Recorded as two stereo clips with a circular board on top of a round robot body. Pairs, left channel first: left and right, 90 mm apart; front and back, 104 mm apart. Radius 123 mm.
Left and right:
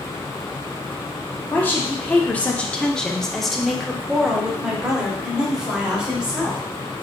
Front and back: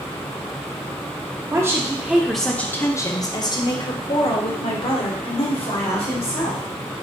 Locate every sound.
1.5 s a woman speaking: 145° left, 0.9 m; by 6.6 s 10° right, 2.5 m